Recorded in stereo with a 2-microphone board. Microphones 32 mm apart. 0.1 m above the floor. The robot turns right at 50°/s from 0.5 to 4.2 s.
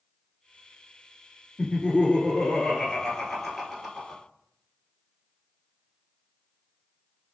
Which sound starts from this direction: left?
Laughter, at 1.6 s.